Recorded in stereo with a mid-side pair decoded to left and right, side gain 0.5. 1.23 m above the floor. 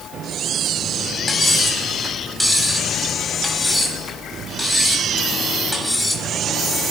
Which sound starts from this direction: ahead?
Cutlery clinking, at 1.3 s.